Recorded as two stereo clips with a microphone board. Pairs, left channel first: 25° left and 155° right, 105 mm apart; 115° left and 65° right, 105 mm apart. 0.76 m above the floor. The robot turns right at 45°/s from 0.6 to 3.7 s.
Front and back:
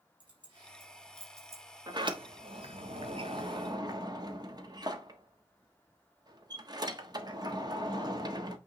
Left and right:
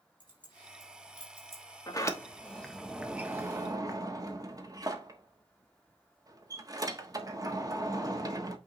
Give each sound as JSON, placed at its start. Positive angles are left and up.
{"t": 0.2, "sound": "keys jangling", "azimuth_deg": 160, "distance_m": 4.0}
{"t": 1.9, "sound": "a sliding door", "azimuth_deg": 160, "distance_m": 1.2}